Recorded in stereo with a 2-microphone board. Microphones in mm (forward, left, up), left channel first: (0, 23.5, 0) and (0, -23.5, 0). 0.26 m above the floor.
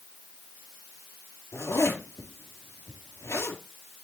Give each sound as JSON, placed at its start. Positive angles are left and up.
{"t": 1.5, "sound": "a zipper", "side_deg": 80, "distance_m": 3.0}